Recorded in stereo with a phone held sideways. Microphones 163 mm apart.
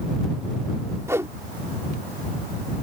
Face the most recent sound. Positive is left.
turn(degrees=-15)  # may be behind; listen again after turning